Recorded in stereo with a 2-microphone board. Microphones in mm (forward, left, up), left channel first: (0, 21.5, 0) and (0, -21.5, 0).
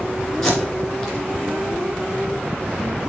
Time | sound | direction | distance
0.4 | tape being pulled | 10° left (ahead or behind) | 2.5 m